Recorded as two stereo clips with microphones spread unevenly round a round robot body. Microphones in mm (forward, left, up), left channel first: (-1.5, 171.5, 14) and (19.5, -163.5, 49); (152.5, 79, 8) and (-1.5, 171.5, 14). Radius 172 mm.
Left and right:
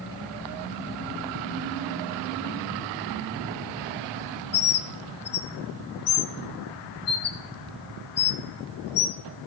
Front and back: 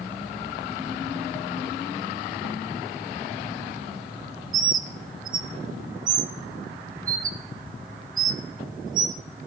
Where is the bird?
135° left, 0.6 m.